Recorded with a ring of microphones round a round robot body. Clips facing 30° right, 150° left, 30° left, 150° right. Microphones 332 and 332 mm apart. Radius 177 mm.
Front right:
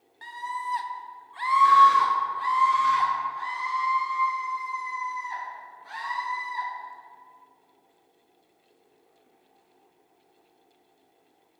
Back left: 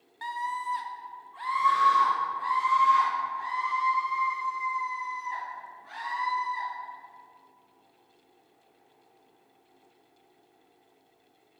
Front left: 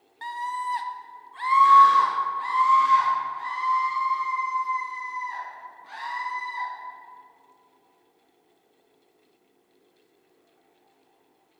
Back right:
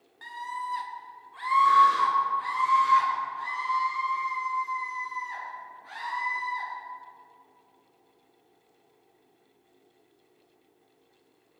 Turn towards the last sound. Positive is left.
turn(degrees=-60)